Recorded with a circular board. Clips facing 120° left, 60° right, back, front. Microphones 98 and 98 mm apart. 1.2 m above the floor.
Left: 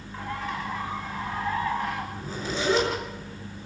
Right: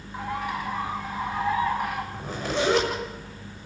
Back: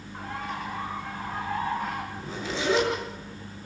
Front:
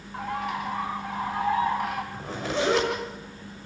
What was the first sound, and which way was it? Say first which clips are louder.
A bird: right 3 dB, front 5 dB; 15° left.